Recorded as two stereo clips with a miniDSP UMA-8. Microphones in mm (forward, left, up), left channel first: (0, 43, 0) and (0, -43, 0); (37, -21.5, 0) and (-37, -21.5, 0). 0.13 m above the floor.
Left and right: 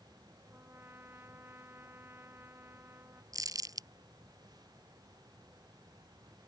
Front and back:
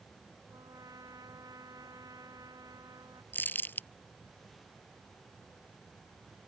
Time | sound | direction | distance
0.5 | a trumpet | 150° right | ?
3.3 | crumpling | 60° right | ?